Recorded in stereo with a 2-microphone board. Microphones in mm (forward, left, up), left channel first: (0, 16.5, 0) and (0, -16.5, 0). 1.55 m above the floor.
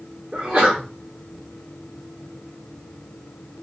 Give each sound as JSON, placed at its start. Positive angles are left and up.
{"t": 0.3, "sound": "a sneeze", "side_deg": -45, "distance_m": 1.3}